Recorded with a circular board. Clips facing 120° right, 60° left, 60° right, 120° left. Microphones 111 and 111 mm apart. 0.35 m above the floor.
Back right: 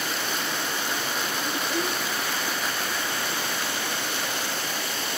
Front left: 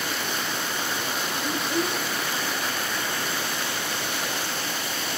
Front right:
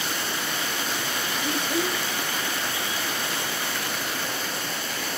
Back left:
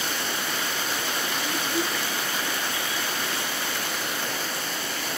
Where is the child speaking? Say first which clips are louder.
Front left 3 dB, front right 3 dB; 25° right, 0.5 m.